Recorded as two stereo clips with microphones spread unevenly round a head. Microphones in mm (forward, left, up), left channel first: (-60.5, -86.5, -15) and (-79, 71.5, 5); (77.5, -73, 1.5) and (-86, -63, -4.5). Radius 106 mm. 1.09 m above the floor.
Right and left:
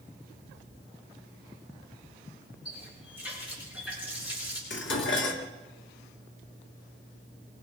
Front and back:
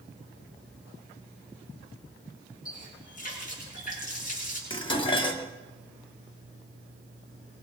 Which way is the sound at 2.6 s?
40° right.